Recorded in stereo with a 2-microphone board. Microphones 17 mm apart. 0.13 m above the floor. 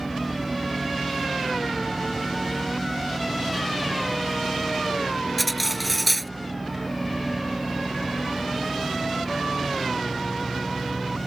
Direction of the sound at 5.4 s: 5° right (ahead or behind).